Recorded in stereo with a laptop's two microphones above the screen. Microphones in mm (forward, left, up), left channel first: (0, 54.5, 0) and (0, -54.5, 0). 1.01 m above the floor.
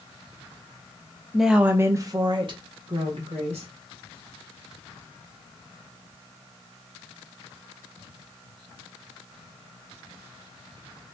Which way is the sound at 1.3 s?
Centre (ahead or behind).